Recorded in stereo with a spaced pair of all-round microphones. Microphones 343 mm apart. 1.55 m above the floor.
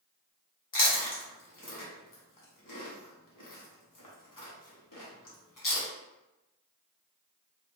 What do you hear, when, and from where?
0.7 s chewing: 75° left (ahead or behind), 0.9 m